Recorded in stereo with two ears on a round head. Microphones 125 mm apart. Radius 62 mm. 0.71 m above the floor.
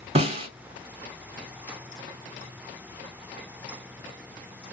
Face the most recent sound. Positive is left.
turn(degrees=-40)  # may be behind; listen again after turning